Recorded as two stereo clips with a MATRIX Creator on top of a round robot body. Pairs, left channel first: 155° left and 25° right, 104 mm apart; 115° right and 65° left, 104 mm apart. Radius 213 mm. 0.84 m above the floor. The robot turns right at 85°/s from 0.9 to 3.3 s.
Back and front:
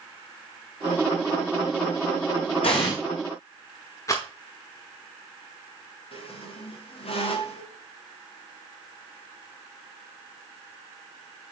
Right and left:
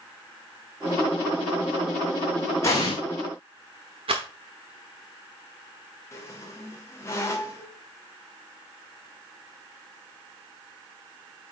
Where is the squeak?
175° right, 1.5 m.